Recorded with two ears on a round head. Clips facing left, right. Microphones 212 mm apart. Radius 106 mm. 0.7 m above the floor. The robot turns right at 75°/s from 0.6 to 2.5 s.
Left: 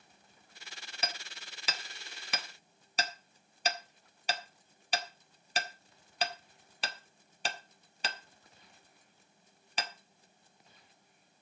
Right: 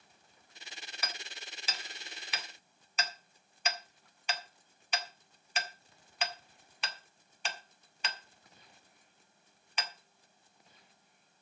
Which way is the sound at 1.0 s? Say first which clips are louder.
Left 4 dB; 25° left (ahead or behind).